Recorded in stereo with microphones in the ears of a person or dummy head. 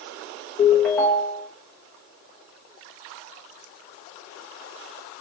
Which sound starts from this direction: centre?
A ringtone, at 0.6 s.